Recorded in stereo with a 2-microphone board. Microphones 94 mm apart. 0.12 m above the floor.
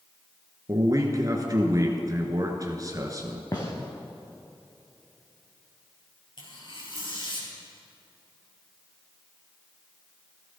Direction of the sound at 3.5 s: 40° left (ahead or behind).